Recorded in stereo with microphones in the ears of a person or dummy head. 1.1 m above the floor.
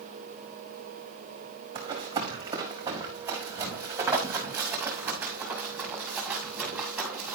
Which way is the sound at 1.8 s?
25° right (ahead or behind).